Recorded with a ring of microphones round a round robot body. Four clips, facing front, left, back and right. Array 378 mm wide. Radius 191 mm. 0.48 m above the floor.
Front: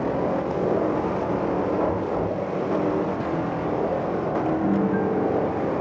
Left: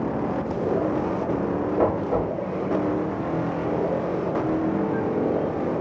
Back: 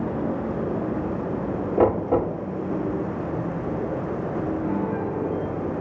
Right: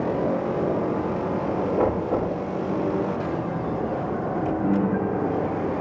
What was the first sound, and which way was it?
Knocking, straight behind.